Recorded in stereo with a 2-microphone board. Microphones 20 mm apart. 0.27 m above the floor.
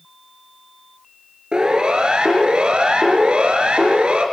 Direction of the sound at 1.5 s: 50° right (ahead or behind).